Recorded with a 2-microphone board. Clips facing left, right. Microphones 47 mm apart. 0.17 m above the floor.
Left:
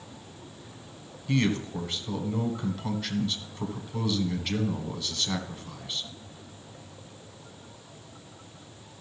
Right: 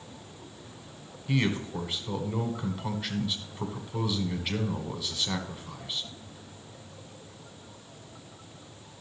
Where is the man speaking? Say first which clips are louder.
Left 2 dB; 10° right (ahead or behind), 1.2 m.